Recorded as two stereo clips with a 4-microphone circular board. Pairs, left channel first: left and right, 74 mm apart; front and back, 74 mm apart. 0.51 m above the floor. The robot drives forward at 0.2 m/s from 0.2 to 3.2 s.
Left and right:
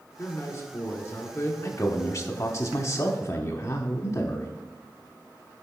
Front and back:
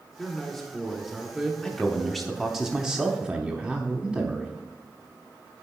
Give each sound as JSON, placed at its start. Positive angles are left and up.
{"t": 0.2, "sound": "a man speaking", "azimuth_deg": 85, "distance_m": 1.4}
{"t": 1.6, "sound": "a man speaking", "azimuth_deg": 80, "distance_m": 0.8}